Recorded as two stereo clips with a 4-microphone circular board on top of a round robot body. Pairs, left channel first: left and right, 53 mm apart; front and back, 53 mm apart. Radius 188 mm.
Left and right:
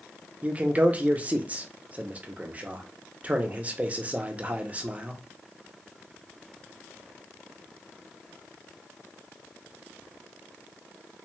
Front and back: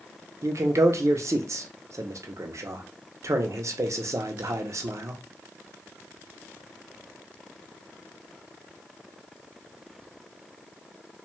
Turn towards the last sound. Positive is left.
turn(degrees=-150)